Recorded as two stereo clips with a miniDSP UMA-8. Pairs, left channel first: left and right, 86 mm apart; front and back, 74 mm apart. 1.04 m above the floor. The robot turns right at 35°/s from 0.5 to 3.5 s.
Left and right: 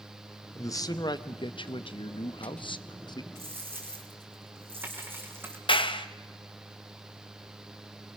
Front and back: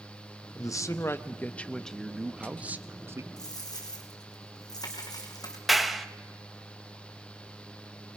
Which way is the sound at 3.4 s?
30° right.